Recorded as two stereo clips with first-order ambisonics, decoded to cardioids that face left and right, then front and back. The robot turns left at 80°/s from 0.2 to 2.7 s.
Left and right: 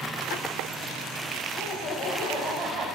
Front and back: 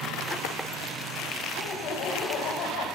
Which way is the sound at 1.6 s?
70° left.